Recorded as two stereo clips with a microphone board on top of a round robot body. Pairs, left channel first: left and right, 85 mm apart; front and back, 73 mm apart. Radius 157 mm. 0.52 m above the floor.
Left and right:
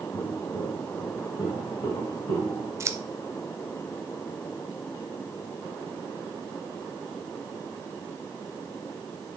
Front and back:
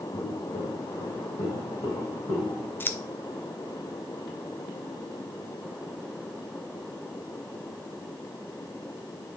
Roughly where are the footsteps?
Ahead left.